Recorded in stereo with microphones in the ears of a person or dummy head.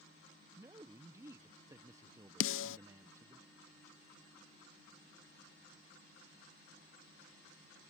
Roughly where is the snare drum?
Left.